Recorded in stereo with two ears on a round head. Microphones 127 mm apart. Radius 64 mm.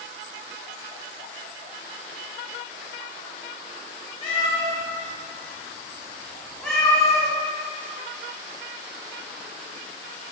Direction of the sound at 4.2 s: 40° left (ahead or behind).